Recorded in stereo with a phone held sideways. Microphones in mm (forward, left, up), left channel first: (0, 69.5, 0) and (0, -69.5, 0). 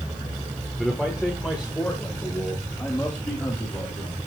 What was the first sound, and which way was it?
A man speaking, centre (ahead or behind).